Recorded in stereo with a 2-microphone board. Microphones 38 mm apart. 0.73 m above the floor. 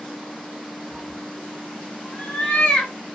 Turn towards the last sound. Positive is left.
turn(degrees=20)  # may be behind; listen again after turning